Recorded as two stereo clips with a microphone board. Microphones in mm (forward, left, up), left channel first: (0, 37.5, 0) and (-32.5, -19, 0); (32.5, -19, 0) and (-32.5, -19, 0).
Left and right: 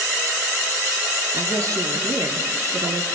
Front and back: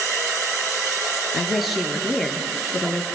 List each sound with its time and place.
1.3 s a woman speaking: 90° right, 4.5 m